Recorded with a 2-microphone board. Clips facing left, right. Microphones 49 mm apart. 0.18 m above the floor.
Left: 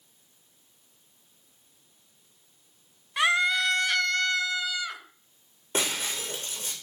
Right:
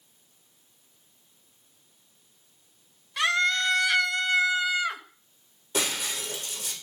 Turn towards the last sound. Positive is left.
turn(degrees=35)  # may be behind; listen again after turning